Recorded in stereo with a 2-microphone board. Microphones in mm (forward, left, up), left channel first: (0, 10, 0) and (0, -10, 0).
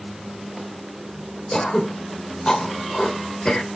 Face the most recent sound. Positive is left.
turn(degrees=45)  # may be behind; listen again after turning